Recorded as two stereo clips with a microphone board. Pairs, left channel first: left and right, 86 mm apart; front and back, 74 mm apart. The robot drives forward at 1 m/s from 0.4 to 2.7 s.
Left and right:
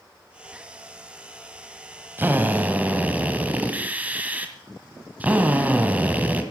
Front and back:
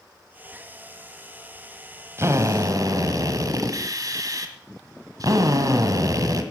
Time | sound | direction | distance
2.2 | a drill | 145° right | 1.2 m